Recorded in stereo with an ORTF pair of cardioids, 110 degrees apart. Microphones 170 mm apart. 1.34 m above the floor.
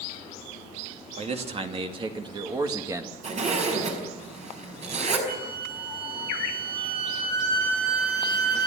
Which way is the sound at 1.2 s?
40° right.